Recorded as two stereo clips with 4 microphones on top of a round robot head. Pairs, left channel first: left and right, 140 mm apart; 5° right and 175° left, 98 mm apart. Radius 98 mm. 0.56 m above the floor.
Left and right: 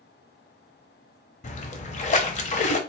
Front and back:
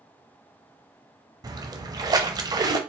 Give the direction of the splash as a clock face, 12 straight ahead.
8 o'clock.